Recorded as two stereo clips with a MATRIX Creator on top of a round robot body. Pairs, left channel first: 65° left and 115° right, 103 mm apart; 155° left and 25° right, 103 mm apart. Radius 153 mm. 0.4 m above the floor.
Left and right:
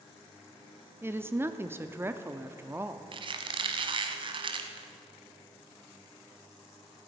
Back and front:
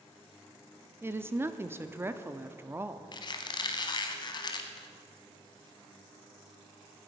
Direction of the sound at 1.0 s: 65° right.